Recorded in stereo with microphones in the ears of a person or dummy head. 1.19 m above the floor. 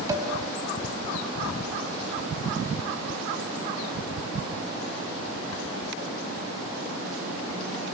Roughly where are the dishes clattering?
Centre.